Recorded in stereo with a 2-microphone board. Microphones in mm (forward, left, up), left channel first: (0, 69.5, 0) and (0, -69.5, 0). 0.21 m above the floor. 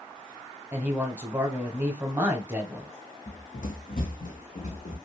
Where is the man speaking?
15° right (ahead or behind), 1.0 m.